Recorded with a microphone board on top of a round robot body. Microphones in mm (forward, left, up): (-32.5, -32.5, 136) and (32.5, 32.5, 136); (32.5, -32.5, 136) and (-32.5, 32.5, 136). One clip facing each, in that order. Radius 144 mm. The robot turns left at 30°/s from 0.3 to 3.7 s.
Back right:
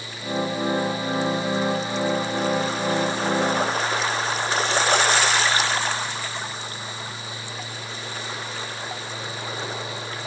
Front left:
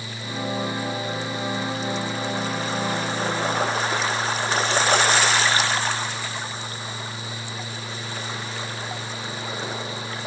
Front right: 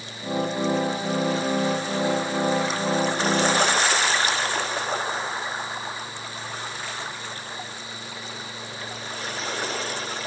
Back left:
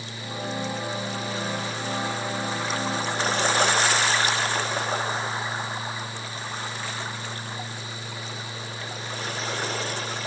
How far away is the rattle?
No rattle in this recording.